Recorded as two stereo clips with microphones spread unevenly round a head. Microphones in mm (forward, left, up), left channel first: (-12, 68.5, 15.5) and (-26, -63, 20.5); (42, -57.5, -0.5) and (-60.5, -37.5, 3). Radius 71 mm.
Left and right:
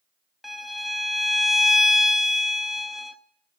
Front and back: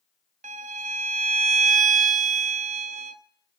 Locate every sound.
0.4 s a violin: 175° left, 0.8 m